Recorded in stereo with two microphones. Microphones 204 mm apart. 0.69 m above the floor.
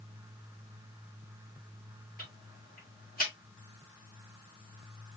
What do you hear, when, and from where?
2.2 s ticking: 45° left (ahead or behind), 1.9 m